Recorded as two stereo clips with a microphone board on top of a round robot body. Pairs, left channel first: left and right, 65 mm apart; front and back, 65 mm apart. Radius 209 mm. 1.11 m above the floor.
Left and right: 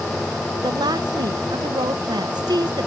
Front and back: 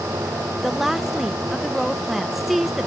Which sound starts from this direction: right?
A woman speaking, at 0.6 s.